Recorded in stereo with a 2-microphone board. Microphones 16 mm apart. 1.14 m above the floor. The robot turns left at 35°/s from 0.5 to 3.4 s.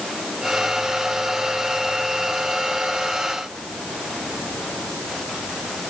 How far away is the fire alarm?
I don't hear a fire alarm.